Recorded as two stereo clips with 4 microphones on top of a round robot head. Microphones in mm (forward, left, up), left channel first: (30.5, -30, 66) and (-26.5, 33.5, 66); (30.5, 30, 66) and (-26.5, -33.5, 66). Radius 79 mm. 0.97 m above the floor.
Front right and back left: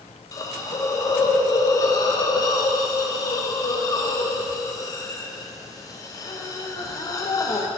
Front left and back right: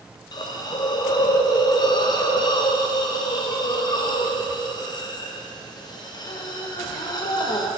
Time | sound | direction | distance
0.3 | a hiss | 5° left | 0.6 m